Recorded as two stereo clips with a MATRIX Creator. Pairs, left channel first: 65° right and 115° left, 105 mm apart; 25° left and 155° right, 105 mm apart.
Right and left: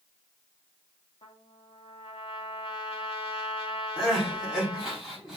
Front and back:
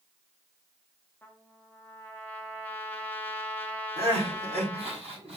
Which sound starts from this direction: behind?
Crying, at 4.0 s.